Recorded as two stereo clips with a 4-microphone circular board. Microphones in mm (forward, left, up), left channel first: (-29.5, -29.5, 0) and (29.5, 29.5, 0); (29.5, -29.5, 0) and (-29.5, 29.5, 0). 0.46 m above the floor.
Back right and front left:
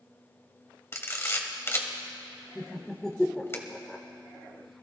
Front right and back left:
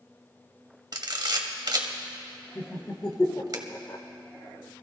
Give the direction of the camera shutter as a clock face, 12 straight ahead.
6 o'clock.